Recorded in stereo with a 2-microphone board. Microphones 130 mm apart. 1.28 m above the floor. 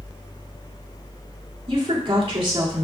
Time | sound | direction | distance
1.7 | a woman speaking | 45° right (ahead or behind) | 3 m